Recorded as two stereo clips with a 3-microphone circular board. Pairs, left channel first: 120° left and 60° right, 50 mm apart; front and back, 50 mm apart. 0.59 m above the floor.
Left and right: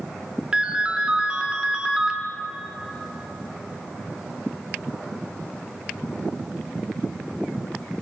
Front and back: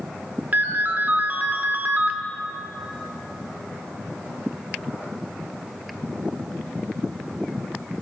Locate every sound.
0.5 s a ringtone: 130° right, 0.9 m